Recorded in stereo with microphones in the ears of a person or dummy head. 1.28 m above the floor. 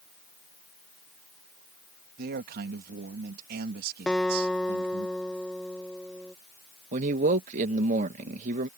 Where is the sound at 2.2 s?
55° right (ahead or behind).